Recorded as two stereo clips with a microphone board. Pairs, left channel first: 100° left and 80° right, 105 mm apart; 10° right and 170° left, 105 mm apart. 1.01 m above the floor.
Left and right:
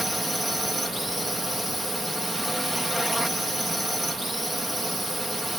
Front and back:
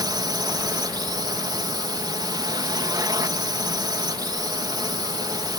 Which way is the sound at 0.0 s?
170° right.